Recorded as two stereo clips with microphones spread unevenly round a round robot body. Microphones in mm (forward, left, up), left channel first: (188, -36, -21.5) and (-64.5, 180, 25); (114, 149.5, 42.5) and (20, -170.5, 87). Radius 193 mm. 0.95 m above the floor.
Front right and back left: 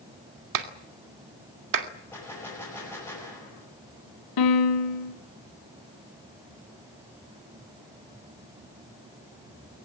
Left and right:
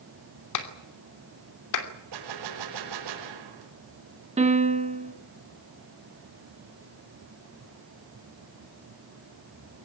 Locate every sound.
0.5 s a clap: 110° left, 2.5 m
2.1 s a gunshot: 125° right, 5.5 m
4.4 s a piano: 35° right, 2.5 m